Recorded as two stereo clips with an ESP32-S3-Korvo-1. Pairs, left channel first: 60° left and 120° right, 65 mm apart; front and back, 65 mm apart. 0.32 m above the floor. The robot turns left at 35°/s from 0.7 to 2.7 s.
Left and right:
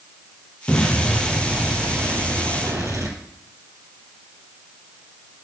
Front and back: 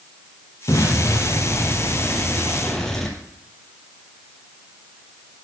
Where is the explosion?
15° right, 2.5 m; by 3.2 s 85° right, 2.5 m.